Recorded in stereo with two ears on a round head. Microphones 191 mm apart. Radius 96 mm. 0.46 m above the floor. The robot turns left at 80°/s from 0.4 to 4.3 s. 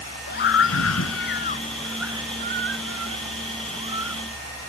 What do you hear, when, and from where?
0.3 s a scream: 125° left; by 4.2 s straight behind